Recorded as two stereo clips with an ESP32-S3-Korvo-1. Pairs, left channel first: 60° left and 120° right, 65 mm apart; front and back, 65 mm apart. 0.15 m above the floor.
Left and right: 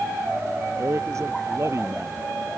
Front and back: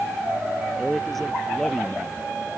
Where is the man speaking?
85° right.